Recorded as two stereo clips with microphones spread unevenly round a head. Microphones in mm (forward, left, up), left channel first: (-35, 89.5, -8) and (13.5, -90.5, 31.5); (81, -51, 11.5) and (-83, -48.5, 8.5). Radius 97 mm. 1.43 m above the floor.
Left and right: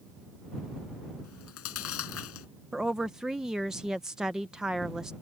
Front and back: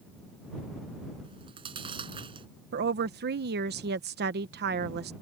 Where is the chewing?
110° left.